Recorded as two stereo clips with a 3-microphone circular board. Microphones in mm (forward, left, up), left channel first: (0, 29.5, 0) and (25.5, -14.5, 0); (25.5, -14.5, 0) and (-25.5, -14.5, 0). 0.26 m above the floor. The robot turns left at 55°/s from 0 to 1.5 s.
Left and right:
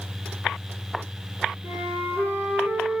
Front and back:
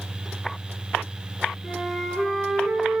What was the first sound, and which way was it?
A flute, 90° right.